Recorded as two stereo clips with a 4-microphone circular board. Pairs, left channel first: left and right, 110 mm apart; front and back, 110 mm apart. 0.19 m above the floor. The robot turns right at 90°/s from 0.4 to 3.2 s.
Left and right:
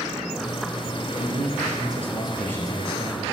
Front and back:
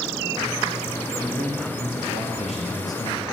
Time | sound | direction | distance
1.2 | a man speaking | 100° right | 3.5 m